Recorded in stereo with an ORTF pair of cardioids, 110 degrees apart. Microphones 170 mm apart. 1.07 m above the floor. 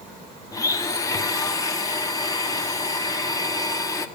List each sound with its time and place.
0.5 s a blender: 20° left, 1.2 m